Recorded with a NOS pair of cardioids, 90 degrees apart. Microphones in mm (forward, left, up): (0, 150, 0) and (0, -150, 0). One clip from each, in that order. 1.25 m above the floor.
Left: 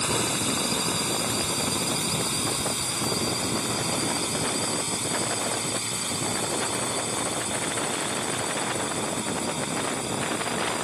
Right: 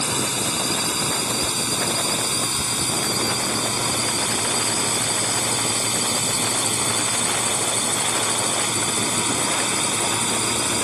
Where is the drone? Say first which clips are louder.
Right 3 dB; 25° right; by 10.8 s 70° right.